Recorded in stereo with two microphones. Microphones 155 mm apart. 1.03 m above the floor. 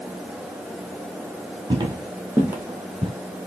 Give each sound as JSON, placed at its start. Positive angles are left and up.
{"t": 1.7, "sound": "footsteps", "side_deg": -30, "distance_m": 1.1}